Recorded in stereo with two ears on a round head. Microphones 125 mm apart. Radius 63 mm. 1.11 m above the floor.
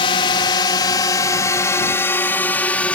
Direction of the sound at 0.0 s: 35° left (ahead or behind).